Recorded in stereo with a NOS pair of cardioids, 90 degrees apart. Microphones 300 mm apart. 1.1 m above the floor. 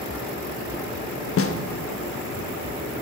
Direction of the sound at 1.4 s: 45° left.